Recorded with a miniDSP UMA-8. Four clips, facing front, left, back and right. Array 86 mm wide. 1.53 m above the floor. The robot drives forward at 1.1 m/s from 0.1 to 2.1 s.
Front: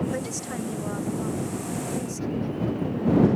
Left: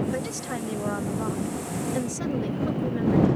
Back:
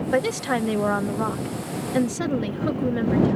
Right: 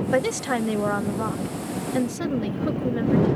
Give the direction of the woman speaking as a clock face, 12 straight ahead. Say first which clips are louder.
Right 8 dB, back 9 dB; 5 o'clock.